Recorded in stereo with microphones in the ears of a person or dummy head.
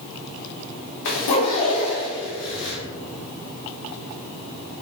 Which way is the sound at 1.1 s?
65° left (ahead or behind).